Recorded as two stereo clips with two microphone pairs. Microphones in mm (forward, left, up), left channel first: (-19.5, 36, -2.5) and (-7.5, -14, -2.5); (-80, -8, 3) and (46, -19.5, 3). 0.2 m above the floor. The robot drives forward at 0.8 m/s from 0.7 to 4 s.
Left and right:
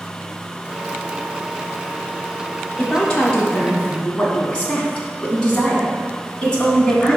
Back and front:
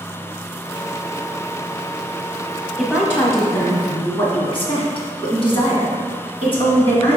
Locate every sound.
2.8 s a woman speaking: 90° left, 1.0 m; by 7.2 s 160° left, 1.4 m